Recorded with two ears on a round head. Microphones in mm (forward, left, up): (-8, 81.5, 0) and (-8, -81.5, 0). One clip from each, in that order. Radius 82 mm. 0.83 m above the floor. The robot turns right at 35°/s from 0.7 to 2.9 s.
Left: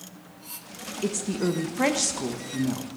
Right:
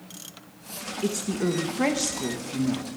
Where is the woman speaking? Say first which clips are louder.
Even; 10° left (ahead or behind), 0.8 m; by 3.0 s 20° left (ahead or behind), 0.8 m.